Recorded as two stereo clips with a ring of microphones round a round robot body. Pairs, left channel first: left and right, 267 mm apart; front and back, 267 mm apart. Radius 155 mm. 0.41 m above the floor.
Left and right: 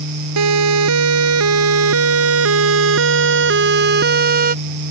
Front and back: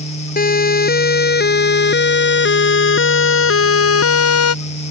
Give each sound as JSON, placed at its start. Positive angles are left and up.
{"t": 0.4, "sound": "a siren", "azimuth_deg": -55}